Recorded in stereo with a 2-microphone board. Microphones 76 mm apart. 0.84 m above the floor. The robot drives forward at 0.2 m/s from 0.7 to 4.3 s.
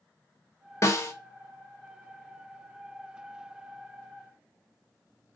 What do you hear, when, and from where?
0.8 s a snare drum: 40° left (ahead or behind), 0.5 m; by 1.1 s 35° left (ahead or behind), 0.5 m